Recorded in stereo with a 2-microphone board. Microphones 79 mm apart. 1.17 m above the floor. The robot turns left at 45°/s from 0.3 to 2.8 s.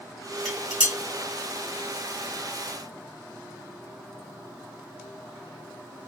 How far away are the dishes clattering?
About 1.7 m.